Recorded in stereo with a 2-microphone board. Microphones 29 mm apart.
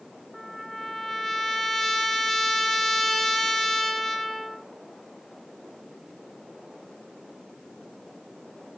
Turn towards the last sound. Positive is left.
turn(degrees=10)  # may be behind; listen again after turning